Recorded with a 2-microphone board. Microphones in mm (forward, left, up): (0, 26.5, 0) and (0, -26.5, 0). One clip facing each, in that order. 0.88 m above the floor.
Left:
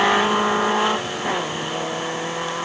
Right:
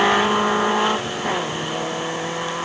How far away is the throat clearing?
I don't hear throat clearing.